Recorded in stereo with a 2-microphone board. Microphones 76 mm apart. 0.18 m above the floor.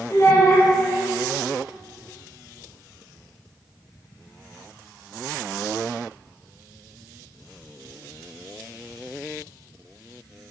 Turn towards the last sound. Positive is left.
turn(degrees=40)  # may be behind; listen again after turning